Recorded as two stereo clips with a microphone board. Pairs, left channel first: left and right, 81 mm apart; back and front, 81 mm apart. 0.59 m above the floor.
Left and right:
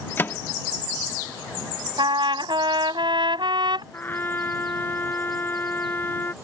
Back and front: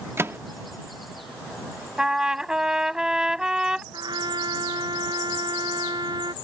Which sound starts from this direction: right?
A trumpet, at 2.0 s.